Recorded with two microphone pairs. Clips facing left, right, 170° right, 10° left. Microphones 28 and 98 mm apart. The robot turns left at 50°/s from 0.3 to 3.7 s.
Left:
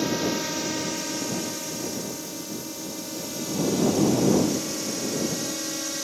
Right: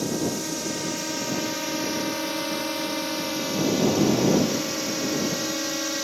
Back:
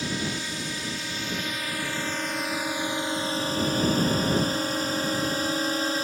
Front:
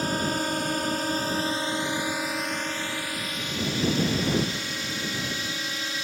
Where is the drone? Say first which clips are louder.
Left 1 dB, front 4 dB; 30° left; by 6.0 s 155° right.